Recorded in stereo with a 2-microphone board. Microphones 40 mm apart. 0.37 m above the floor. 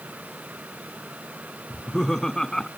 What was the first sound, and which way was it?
Laughter, 10° left (ahead or behind).